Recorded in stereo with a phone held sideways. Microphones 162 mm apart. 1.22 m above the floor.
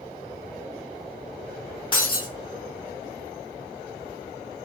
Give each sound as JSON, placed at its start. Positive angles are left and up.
{"t": 1.9, "sound": "breaking glass", "side_deg": 30, "distance_m": 0.9}